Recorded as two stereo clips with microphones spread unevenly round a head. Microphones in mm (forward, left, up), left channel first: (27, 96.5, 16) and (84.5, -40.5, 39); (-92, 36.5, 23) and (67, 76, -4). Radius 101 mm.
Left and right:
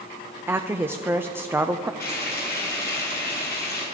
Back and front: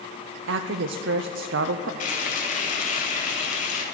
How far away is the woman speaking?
About 0.5 m.